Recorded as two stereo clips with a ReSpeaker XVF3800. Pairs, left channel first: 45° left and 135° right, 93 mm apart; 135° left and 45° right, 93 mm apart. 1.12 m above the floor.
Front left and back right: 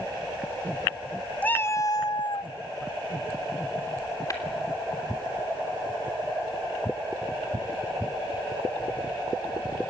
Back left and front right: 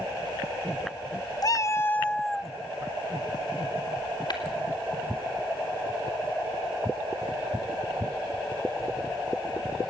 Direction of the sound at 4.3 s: 95° left.